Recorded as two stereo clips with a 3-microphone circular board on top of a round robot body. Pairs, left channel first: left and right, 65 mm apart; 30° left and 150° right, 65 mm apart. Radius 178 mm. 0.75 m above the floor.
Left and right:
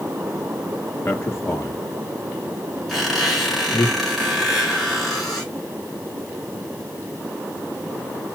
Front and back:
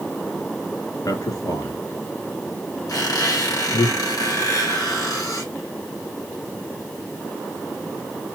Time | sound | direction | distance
1.1 | a man speaking | 40° left | 2 m
2.9 | a squeak | 5° right | 3.5 m